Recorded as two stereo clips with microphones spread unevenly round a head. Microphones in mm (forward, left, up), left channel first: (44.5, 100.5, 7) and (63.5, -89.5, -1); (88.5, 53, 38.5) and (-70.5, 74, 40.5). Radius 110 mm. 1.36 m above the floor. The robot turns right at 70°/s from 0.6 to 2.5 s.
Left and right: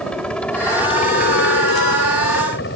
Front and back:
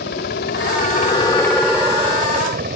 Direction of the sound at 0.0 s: 10° left.